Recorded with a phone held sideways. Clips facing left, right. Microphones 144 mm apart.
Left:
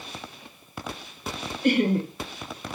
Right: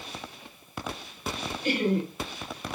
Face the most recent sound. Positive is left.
turn(degrees=60)  # may be behind; listen again after turning